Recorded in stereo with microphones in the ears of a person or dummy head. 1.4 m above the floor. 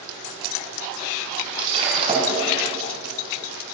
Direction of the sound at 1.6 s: 30° right (ahead or behind).